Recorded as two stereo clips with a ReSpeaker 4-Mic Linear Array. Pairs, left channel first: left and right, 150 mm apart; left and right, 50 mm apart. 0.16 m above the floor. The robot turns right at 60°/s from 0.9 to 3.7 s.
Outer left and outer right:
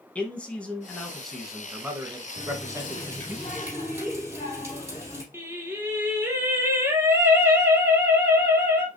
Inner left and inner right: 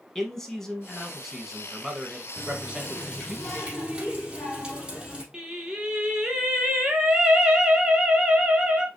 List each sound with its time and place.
0.1 s a man speaking: 10° left (ahead or behind), 1.0 m; by 3.4 s 15° right (ahead or behind), 1.0 m
2.4 s a running tap: 115° left, 3.5 m; by 5.2 s 160° right, 3.5 m
5.3 s singing: 15° right (ahead or behind), 1.1 m